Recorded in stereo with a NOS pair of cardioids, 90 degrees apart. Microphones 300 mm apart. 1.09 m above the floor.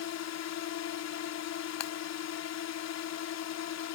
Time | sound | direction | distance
0.0 | a drone | 65° left | ?
1.8 | breaking glass | 60° left | ?